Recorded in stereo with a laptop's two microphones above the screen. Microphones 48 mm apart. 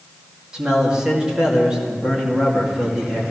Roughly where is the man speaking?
Centre.